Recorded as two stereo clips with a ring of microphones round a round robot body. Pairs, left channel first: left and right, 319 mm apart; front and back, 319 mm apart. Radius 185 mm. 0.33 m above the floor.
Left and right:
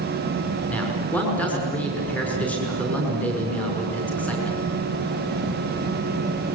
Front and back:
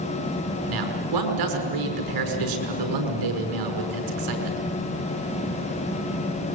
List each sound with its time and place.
0.7 s a man speaking: 175° left, 5.5 m